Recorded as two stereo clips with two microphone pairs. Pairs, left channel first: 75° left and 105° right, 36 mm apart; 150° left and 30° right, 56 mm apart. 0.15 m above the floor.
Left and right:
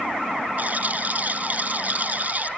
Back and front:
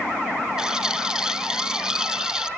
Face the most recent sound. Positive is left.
turn(degrees=-110)